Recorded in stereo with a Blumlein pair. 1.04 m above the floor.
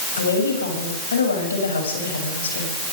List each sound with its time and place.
0.2 s a woman speaking: 70° left, 7 m